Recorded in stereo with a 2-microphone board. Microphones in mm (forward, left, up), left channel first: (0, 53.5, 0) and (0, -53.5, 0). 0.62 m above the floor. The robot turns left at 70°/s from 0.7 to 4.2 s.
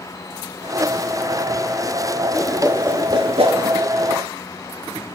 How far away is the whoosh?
About 1.8 m.